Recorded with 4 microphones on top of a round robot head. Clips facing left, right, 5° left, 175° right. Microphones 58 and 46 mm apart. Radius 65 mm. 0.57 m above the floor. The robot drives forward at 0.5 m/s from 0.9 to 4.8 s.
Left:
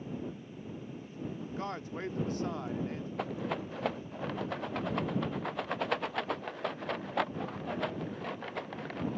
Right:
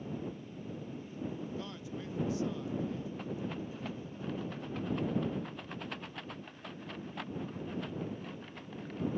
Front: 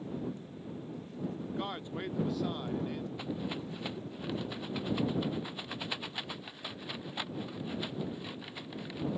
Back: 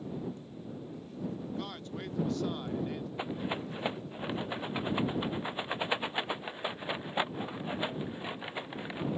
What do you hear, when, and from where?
1.5 s a man speaking: 60° left; by 3.1 s 100° left
3.2 s a rattle: 120° left